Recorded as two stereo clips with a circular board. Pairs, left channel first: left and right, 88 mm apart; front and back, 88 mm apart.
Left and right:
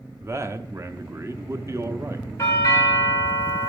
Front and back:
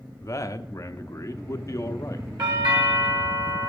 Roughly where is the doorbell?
Behind left.